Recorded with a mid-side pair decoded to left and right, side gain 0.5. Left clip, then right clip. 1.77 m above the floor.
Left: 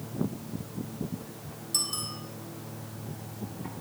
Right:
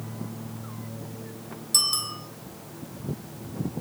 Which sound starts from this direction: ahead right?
A bicycle bell, at 1.7 s.